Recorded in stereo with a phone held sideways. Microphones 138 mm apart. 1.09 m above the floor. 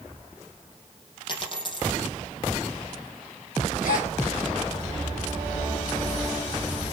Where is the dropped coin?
35° left (ahead or behind), 5 m.